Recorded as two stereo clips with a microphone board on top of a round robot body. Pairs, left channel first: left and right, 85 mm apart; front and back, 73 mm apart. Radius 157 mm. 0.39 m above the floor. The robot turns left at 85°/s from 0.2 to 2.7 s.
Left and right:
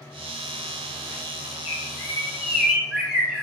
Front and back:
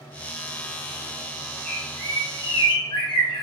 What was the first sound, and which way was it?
A bird, 80° left.